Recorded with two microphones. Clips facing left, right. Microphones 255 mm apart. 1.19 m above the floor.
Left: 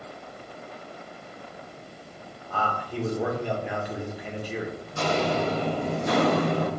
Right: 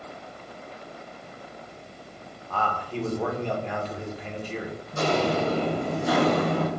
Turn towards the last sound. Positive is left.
turn(degrees=20)  # may be behind; listen again after turning